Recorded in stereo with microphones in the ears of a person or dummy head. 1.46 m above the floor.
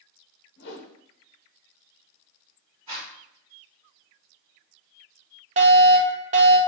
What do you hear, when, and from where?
0.6 s a whoosh: 65° left (ahead or behind), 0.8 m
2.9 s a zipper: 30° right (ahead or behind), 1.9 m
5.6 s a fire alarm: 35° right (ahead or behind), 0.7 m